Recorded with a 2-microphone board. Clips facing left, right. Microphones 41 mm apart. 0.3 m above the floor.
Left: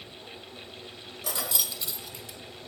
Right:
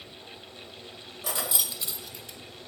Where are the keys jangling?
20° right (ahead or behind), 0.6 m; by 2.4 s 5° left (ahead or behind), 0.9 m.